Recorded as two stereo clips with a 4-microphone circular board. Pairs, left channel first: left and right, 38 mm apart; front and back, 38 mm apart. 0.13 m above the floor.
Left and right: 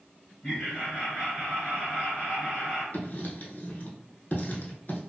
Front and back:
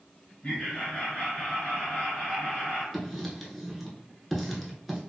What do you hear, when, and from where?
0.4 s laughter: 50° left, 1.8 m
2.9 s writing: 85° left, 0.7 m